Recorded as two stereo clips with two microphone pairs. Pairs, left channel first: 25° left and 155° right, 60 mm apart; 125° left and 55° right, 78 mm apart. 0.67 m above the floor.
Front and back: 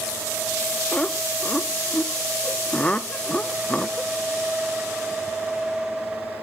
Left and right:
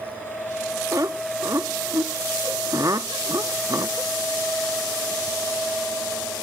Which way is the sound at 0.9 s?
40° right.